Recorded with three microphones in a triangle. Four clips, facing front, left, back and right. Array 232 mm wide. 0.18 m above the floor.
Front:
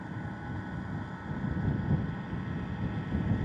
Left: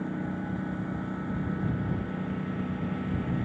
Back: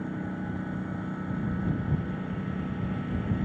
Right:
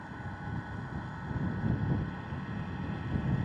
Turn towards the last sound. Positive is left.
turn(degrees=120)